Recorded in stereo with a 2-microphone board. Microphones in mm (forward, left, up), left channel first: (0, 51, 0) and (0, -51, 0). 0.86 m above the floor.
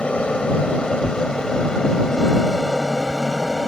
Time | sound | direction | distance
0.0 | an aircraft | 10° left (ahead or behind) | ?
1.0 | tearing paper | 45° left (ahead or behind) | ?